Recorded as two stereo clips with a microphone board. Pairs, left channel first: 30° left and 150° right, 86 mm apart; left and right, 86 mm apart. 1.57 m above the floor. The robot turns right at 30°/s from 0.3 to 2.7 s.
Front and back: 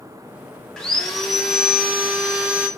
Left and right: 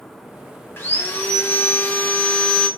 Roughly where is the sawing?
Left.